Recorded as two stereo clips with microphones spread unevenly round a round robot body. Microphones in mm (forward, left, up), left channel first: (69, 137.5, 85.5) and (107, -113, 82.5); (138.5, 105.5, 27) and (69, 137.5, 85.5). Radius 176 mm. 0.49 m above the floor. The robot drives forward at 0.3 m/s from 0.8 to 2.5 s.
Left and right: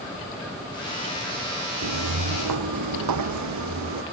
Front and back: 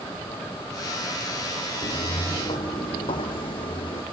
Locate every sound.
1.8 s footsteps: 90° right, 1.0 m; by 4.0 s 70° right, 2.0 m